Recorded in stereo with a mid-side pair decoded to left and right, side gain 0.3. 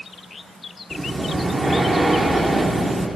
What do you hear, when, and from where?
0.9 s breathing: 40° right, 0.6 m